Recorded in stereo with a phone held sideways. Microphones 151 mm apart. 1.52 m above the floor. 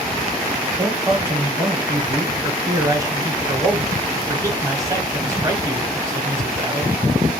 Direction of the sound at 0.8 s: 20° right (ahead or behind).